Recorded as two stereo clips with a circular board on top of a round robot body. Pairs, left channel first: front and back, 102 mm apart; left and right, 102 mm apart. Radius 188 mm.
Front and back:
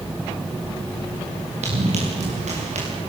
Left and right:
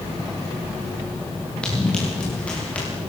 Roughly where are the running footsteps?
Behind.